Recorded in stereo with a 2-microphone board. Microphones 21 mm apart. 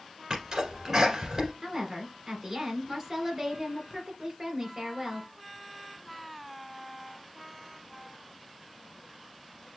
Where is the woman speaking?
25° right (ahead or behind), 2.5 m.